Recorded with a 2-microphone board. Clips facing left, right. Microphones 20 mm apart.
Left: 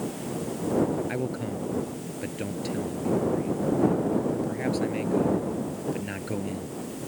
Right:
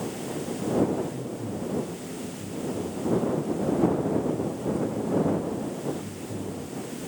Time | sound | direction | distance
1.1 | a man speaking | 85° left | ?